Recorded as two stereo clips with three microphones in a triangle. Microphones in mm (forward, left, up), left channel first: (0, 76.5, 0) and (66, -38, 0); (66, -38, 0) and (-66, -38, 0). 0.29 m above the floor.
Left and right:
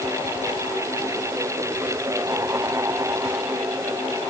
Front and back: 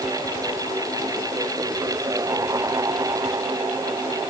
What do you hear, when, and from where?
Only background noise.